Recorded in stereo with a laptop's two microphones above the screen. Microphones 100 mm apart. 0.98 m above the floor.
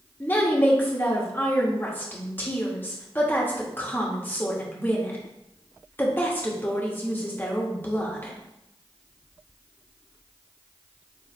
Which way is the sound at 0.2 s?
20° left (ahead or behind).